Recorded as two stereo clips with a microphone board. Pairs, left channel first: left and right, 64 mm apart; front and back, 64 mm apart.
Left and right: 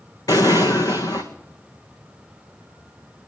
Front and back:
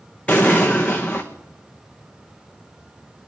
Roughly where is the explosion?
Left.